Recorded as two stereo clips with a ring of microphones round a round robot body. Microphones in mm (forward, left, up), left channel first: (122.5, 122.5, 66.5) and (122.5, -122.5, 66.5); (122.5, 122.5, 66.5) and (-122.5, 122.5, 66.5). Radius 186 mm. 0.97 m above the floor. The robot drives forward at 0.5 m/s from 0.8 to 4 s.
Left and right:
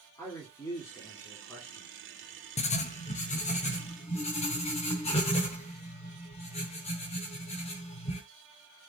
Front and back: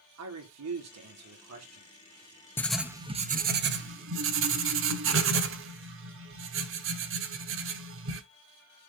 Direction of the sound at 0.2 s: 170° left.